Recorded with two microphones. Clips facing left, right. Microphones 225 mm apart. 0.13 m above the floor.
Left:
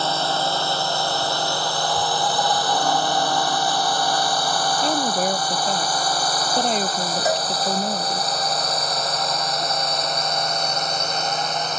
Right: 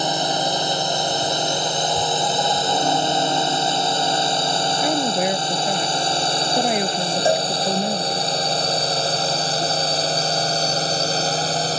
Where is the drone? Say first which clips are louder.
Right 2 dB; 20° right (ahead or behind); by 11.8 s 35° right (ahead or behind).